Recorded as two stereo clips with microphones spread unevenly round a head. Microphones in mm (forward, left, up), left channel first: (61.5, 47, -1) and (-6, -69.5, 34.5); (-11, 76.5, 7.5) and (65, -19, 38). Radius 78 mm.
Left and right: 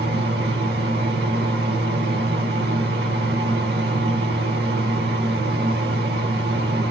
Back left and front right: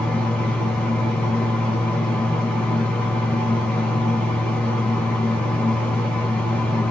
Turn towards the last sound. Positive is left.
turn(degrees=-145)